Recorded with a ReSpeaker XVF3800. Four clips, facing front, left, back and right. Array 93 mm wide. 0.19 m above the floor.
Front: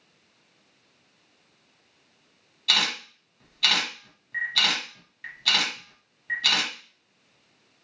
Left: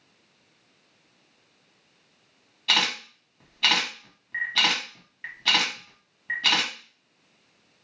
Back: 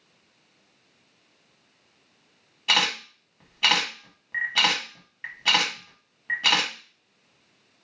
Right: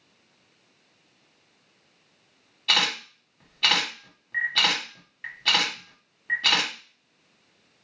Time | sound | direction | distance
2.7 | a camera shutter | 170° left | 1.5 m